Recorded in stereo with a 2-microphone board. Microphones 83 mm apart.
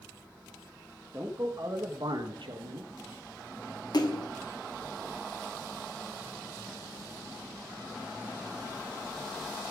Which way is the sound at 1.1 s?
35° right (ahead or behind).